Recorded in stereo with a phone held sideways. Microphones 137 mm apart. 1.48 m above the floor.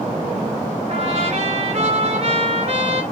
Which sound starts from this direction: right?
A trumpet, at 0.9 s.